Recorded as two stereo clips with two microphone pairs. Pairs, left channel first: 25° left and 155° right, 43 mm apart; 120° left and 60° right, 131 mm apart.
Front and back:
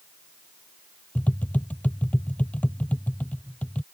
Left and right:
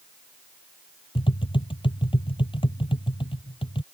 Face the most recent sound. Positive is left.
turn(degrees=75)